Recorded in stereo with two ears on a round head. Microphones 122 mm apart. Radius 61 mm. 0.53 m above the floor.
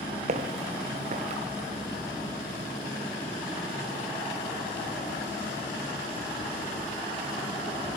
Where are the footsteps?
55° right (ahead or behind), 1.6 m.